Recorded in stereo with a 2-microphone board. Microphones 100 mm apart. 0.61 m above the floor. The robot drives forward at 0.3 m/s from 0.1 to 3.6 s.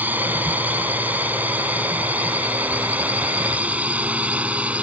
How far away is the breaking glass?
I don't hear breaking glass.